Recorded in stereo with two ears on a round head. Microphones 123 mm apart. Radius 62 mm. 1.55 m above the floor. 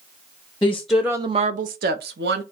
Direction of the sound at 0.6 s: 15° left (ahead or behind).